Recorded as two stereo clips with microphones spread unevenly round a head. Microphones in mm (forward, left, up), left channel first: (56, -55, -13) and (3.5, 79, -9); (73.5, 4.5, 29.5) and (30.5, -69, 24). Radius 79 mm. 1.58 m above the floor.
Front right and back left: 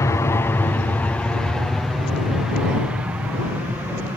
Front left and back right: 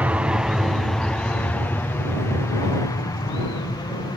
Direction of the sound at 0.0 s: 90° right.